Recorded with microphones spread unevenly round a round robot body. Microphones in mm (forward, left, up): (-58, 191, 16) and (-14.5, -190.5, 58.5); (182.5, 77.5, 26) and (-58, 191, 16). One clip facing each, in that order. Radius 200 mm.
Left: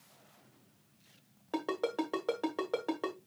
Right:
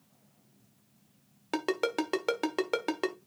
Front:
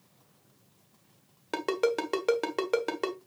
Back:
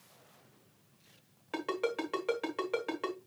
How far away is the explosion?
I don't hear an explosion.